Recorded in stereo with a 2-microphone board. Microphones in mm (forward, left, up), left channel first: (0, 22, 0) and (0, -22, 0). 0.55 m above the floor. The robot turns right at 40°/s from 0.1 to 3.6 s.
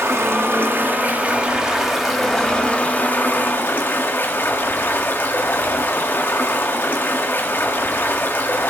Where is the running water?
80° right, 1.4 m; by 8.7 s 60° left, 1.4 m.